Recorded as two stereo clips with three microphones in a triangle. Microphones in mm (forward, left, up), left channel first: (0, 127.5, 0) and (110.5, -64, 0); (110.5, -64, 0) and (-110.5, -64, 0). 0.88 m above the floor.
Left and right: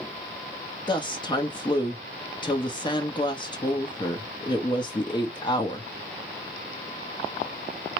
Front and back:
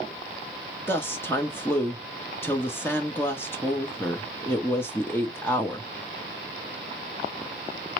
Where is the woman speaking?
70° left, 1.0 m.